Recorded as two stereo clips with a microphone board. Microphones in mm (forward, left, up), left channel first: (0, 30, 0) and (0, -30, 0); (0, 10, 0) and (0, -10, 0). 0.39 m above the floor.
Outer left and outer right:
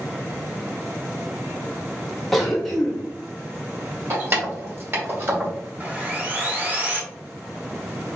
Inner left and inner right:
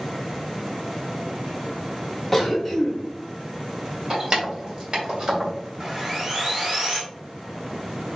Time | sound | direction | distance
2.3 | a cough | 5° left (ahead or behind) | 0.9 m
4.1 | keys jangling | 40° right (ahead or behind) | 1.1 m
5.8 | sawing | 25° right (ahead or behind) | 0.8 m